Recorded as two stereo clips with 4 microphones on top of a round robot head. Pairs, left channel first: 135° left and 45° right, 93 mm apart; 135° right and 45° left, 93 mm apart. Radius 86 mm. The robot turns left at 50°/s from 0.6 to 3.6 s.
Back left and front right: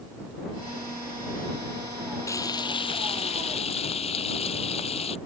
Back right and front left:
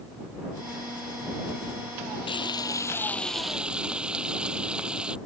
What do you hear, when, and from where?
2.3 s frying: 165° right; by 5.2 s 125° left